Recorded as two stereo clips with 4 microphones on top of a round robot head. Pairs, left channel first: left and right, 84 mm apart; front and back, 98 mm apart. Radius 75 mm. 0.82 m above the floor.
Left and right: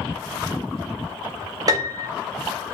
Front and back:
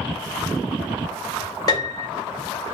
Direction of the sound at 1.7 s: 50° right.